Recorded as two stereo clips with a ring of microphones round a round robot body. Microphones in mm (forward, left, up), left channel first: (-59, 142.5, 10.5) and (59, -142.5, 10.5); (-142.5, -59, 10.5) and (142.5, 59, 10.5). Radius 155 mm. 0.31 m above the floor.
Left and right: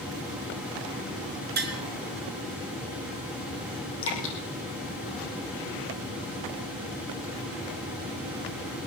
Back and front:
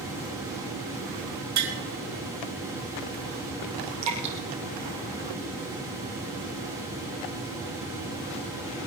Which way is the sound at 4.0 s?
60° left.